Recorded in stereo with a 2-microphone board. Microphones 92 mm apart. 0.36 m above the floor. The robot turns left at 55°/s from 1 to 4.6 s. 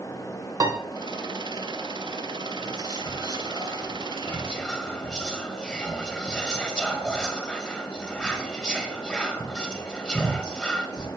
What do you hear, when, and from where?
0.6 s a piano: 45° right (ahead or behind), 0.7 m
2.6 s whispering: 40° left (ahead or behind), 1.3 m; by 11.1 s 10° left (ahead or behind), 1.3 m